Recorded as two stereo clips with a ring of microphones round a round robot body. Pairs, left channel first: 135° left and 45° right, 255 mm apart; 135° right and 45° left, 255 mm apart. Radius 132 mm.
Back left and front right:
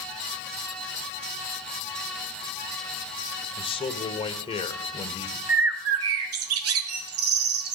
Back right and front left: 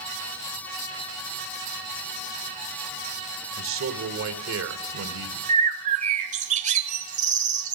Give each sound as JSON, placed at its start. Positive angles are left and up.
{"t": 3.6, "sound": "a man speaking", "azimuth_deg": 70, "distance_m": 1.5}
{"t": 5.5, "sound": "a bird", "azimuth_deg": -15, "distance_m": 1.2}